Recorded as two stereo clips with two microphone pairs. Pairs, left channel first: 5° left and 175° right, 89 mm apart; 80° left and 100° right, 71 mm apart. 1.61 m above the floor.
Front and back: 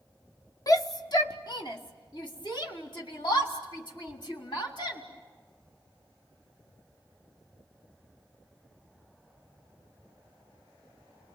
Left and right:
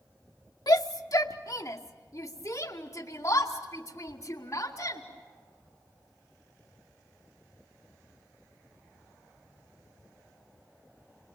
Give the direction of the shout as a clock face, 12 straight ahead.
10 o'clock.